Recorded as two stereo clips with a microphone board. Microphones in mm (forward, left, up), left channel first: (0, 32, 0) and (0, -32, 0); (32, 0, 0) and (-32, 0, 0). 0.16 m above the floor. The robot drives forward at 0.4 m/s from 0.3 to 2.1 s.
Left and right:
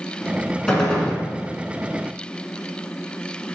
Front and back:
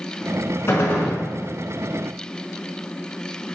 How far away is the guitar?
I don't hear a guitar.